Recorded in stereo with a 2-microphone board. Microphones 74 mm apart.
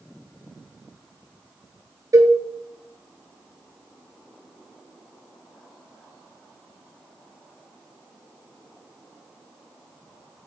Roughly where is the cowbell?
Right.